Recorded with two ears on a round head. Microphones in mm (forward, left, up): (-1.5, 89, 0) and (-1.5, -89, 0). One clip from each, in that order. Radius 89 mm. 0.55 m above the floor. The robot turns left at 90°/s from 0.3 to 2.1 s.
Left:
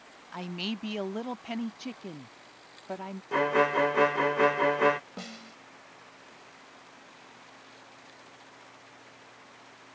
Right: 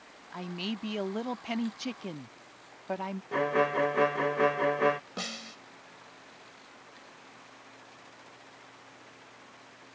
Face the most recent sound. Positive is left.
turn(degrees=-40)  # may be behind; listen again after turning